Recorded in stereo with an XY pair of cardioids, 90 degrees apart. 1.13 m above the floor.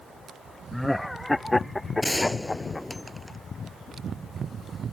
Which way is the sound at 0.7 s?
10° left.